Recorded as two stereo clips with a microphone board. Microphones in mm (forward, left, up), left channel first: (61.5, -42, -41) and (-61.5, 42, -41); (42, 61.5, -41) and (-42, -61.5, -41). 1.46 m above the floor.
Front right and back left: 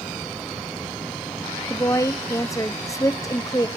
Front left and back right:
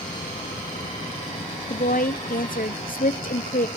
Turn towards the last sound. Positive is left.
turn(degrees=35)